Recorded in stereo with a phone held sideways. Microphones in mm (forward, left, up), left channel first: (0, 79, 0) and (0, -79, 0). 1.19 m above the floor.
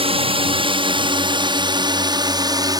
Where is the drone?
35° right (ahead or behind); by 2.8 s 25° right (ahead or behind).